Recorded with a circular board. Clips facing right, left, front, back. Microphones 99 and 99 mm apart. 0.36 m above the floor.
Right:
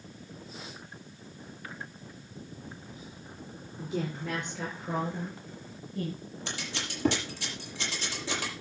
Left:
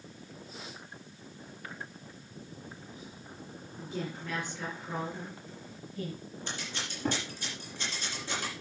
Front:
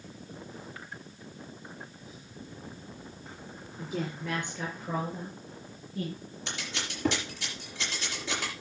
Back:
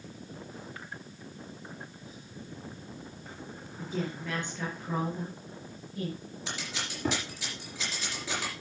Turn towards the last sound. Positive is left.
turn(degrees=-90)